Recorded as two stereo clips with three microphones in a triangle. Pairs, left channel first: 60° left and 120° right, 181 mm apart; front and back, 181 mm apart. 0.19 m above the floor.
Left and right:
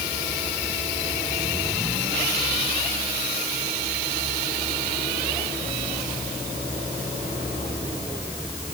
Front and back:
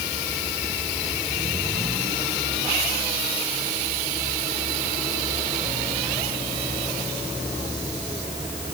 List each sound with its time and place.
Only background noise.